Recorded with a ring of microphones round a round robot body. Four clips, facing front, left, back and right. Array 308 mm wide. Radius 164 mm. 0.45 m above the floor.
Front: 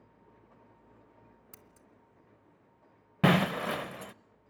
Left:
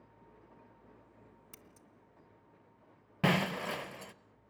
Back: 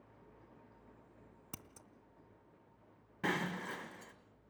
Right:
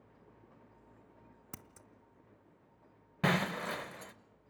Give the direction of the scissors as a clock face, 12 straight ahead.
4 o'clock.